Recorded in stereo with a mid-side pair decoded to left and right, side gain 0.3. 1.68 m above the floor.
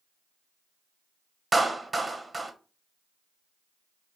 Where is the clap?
35° right, 0.9 m.